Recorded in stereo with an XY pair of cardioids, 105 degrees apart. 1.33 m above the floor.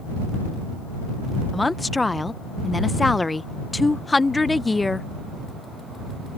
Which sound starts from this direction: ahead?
A woman speaking, at 1.5 s.